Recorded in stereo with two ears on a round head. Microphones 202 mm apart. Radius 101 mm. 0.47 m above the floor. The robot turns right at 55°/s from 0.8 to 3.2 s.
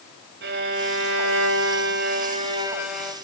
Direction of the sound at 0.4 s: 120° right.